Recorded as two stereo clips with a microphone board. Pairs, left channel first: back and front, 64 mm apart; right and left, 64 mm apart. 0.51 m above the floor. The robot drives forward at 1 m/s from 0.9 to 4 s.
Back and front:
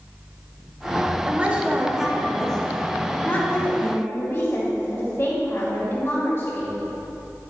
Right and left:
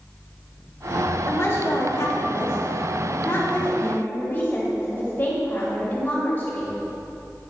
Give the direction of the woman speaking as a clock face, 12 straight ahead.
2 o'clock.